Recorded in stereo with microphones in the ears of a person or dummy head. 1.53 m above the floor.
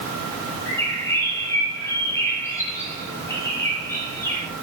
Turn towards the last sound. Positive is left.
turn(degrees=15)  # may be behind; listen again after turning